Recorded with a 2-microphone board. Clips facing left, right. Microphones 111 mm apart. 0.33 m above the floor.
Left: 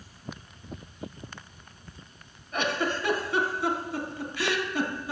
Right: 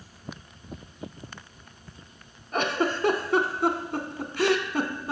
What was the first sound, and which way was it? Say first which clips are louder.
A giggle: right 3 dB; 55° right (ahead or behind).